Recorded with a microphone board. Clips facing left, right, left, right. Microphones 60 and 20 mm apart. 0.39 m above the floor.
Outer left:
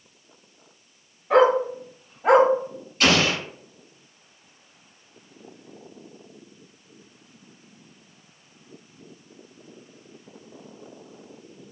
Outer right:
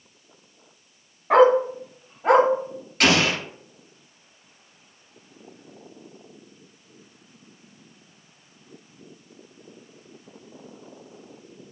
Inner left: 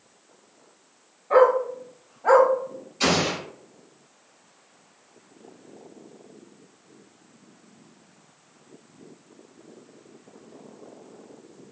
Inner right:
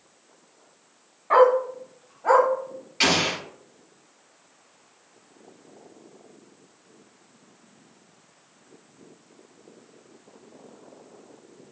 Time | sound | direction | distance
1.3 | a dog barking | 55° right (ahead or behind) | 1.2 m
3.0 | an explosion | 85° right | 1.9 m